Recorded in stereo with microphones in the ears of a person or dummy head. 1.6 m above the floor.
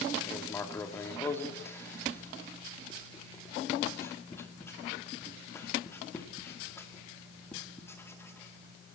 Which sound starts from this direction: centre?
Writing, at 0.2 s.